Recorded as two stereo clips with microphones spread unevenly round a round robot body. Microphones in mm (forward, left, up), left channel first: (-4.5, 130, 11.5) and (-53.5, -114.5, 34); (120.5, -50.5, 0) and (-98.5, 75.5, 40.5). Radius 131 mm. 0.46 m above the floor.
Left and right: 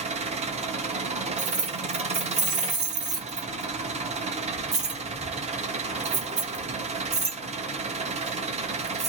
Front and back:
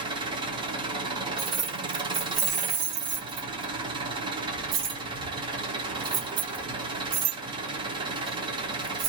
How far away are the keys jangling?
About 1.7 m.